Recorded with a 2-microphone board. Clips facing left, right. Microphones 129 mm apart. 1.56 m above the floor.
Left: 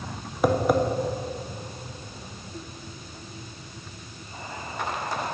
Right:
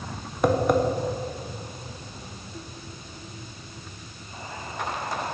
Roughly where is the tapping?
Centre.